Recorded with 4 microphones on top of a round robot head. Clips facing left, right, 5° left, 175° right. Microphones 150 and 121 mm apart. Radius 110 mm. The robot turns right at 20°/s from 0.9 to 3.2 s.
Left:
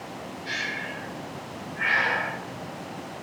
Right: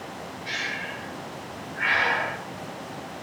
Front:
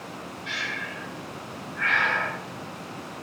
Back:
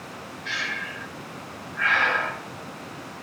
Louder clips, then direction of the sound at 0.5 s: Even, back 2 dB; 155° right.